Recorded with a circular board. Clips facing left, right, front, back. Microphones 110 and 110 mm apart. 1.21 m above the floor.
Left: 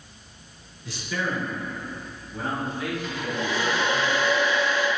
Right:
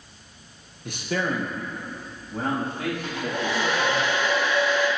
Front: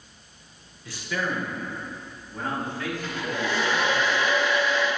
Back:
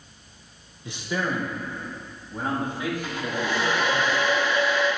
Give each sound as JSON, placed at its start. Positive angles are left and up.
{"t": 0.8, "sound": "a man speaking", "azimuth_deg": -115, "distance_m": 1.1}
{"t": 3.0, "sound": "a hair dryer", "azimuth_deg": -105, "distance_m": 3.0}